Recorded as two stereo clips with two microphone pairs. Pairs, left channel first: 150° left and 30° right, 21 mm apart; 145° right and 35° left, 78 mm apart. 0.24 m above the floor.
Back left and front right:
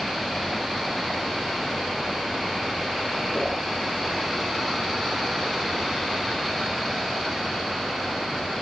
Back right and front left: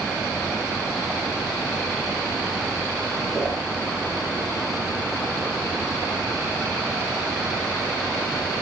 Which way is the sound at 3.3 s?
115° left.